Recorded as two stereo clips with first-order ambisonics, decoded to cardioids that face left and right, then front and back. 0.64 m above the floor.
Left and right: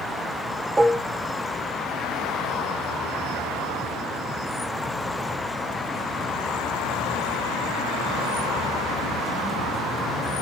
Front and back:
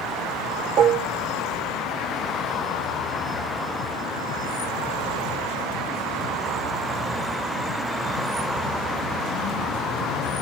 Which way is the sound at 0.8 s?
160° right.